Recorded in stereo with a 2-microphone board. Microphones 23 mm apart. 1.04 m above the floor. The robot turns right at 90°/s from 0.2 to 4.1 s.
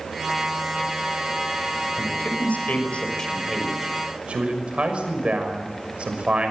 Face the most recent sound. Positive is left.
turn(degrees=-130)